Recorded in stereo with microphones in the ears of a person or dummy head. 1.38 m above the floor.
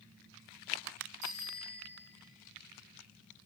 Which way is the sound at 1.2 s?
85° right.